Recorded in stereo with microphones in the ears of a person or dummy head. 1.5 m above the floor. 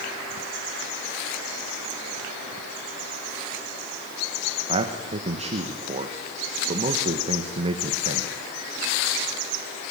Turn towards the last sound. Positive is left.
turn(degrees=-35)  # may be behind; listen again after turning